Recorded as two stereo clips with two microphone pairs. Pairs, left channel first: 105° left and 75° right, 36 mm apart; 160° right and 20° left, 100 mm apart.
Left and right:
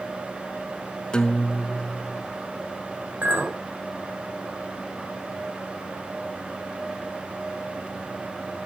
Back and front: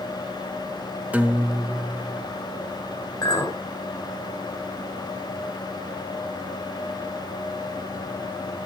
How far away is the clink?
About 3 m.